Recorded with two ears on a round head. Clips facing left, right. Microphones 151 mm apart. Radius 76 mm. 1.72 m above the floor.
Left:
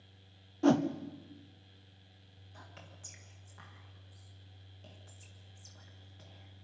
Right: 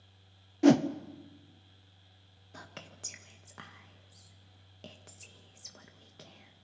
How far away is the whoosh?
About 0.7 m.